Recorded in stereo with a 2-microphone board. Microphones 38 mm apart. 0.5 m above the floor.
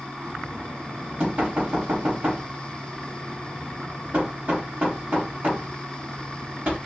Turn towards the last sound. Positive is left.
turn(degrees=-40)  # may be behind; listen again after turning